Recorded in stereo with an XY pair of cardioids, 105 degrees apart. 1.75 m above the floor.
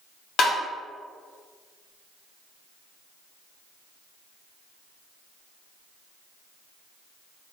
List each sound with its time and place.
0.4 s tapping: 65° left, 1.1 m